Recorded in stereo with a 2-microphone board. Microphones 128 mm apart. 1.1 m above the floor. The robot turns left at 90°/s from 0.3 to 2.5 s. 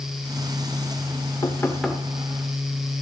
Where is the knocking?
40° left, 2 m; by 2.0 s 20° right, 2 m.